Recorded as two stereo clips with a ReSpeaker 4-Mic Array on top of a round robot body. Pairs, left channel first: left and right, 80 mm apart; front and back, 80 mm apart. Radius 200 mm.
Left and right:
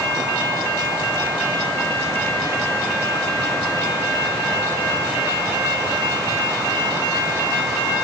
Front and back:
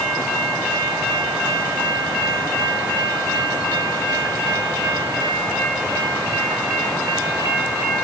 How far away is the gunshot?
No gunshot in this recording.